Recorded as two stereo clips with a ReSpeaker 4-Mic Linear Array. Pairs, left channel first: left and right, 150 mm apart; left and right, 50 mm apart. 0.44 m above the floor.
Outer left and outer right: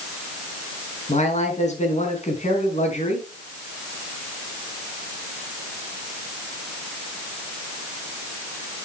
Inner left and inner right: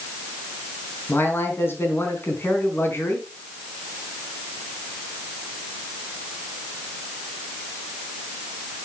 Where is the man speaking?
50° left (ahead or behind), 4 m.